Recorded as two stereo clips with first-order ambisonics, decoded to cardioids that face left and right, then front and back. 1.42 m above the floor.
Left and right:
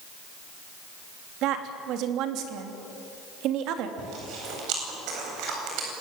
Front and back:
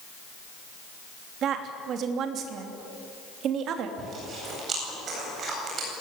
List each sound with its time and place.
1.4 s a woman speaking: 130° right, 3 m
4.0 s chewing: 120° right, 8.5 m